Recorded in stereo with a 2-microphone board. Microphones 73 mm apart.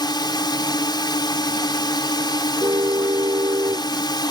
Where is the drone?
80° left.